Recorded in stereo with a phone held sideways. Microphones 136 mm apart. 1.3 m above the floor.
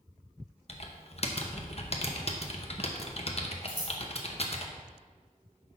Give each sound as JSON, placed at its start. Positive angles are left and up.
{"t": 0.7, "sound": "typing on a keyboard", "side_deg": 45, "distance_m": 0.7}
{"t": 3.7, "sound": "scissors", "side_deg": 70, "distance_m": 1.9}